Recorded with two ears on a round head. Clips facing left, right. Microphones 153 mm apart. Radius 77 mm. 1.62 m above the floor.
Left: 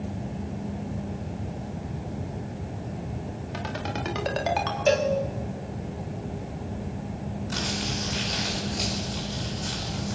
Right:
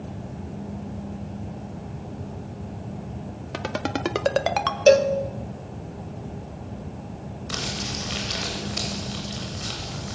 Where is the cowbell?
50° right (ahead or behind), 1.6 m.